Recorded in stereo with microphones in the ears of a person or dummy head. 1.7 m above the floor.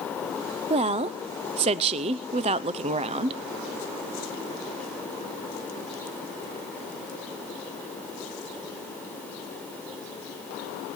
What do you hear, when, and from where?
0.7 s a woman speaking: 35° right (ahead or behind), 0.5 m